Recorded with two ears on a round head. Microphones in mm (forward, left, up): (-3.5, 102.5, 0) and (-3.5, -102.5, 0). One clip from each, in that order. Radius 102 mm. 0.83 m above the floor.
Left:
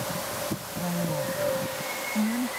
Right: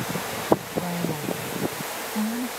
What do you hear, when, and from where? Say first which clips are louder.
0.8 s a woman speaking: right 1 dB; 15° right (ahead or behind); by 2.5 s 10° right (ahead or behind)